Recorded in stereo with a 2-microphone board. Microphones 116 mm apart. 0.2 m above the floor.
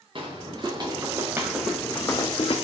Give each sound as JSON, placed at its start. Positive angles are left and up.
{"t": 0.1, "sound": "footsteps", "side_deg": -45, "distance_m": 1.1}